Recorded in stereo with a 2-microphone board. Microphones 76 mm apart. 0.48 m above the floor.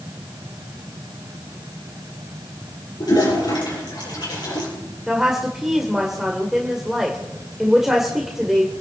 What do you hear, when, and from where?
3.0 s a toilet flushing: 60° left (ahead or behind), 7.5 m
5.1 s a woman speaking: 5° right (ahead or behind), 1.9 m